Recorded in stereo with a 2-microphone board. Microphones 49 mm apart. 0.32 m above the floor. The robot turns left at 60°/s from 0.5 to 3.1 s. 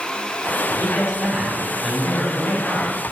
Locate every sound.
0.7 s a man speaking: 130° right, 1.4 m; by 2.9 s 100° left, 1.4 m